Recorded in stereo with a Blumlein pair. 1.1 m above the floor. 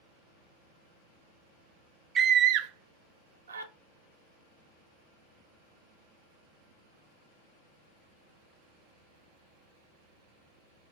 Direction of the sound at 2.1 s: 25° right.